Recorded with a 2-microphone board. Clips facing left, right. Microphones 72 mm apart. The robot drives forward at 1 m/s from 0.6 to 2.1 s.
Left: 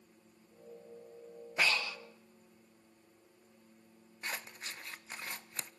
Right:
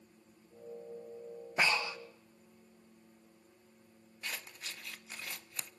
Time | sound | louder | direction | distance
1.6 | breathing | right 1 dB | 20° right (ahead or behind) | 1.4 m
4.2 | scissors | left 2 dB | 35° left (ahead or behind) | 0.6 m